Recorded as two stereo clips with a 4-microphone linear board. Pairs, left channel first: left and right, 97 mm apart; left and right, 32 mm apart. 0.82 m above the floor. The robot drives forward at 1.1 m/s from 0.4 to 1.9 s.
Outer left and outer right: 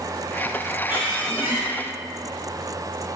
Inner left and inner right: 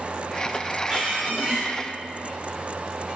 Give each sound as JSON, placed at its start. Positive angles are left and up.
{"t": 0.9, "sound": "a squeak", "side_deg": -20, "distance_m": 3.0}